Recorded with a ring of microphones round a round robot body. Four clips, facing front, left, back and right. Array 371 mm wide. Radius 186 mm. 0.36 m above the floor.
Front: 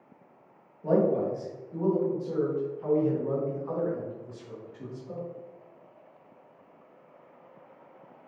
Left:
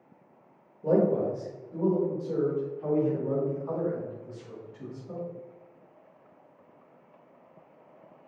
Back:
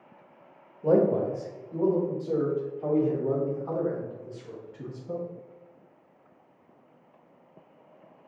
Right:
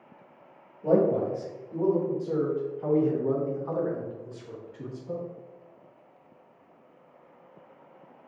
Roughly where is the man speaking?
Behind.